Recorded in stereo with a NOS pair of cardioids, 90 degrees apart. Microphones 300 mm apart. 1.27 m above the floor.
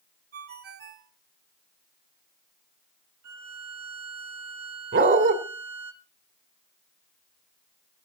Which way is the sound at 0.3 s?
45° right.